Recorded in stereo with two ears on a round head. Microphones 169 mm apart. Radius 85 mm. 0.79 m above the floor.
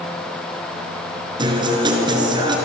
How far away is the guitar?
About 4 m.